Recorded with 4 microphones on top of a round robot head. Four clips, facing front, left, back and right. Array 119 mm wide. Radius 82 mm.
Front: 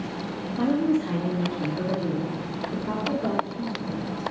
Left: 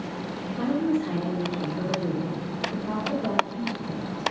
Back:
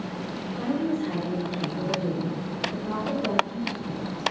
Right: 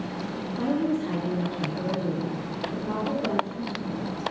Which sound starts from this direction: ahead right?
A woman speaking, at 0.6 s.